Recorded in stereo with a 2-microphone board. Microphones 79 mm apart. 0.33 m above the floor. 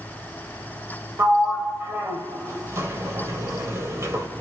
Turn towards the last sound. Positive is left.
turn(degrees=-35)  # may be behind; listen again after turning